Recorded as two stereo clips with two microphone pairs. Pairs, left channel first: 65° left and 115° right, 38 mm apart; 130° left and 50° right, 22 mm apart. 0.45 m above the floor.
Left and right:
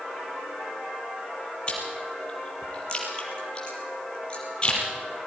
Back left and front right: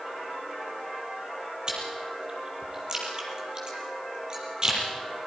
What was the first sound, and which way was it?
Chewing, 5° left.